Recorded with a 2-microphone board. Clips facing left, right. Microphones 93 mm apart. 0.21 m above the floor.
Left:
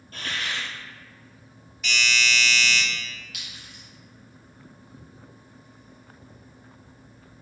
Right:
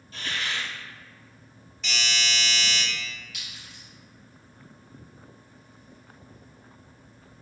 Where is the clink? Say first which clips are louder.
Left 1 dB; 65° left (ahead or behind), 1.3 m.